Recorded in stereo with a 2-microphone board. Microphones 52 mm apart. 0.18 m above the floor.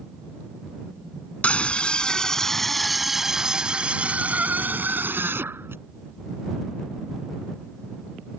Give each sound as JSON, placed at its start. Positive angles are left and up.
{"t": 1.4, "sound": "a scream", "side_deg": 25}